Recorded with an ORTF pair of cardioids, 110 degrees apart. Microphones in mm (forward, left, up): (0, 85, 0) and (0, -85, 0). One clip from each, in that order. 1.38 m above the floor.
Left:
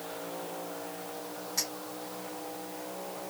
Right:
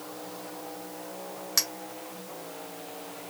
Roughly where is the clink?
Right.